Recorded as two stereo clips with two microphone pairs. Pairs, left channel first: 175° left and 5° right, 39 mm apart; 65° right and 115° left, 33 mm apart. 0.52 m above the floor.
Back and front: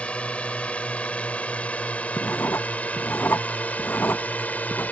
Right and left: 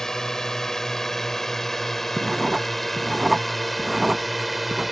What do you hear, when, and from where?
0.0 s a drone: 135° right; by 4.9 s 155° right
2.2 s writing: 165° right